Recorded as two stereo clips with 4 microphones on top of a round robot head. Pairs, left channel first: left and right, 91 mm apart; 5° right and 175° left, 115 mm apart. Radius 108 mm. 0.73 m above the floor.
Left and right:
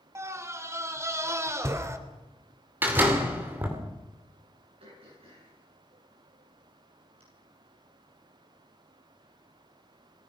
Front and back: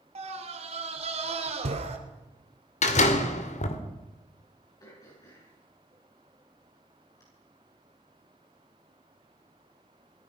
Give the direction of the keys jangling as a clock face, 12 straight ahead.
No keys jangling in this recording.